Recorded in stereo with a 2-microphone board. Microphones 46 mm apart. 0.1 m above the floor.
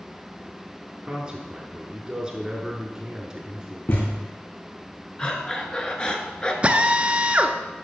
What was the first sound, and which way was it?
A man speaking, 15° right (ahead or behind).